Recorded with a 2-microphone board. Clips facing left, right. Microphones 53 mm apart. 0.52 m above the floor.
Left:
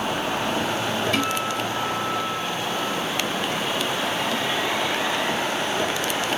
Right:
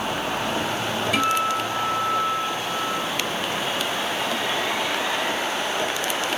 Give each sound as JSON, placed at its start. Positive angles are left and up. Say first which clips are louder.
{"t": 1.1, "sound": "a guitar", "louder": "right 3 dB", "side_deg": -10, "distance_m": 0.7}